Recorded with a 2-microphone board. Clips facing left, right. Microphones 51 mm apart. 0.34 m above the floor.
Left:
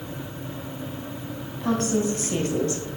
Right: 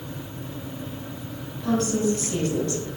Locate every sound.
1.6 s a woman speaking: 40° left (ahead or behind), 2.5 m; by 2.8 s 30° left (ahead or behind), 1.4 m